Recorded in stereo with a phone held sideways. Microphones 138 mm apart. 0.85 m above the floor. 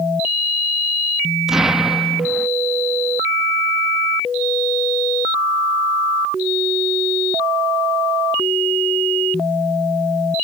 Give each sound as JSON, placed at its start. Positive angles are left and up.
{"t": 1.5, "sound": "an explosion", "side_deg": -5}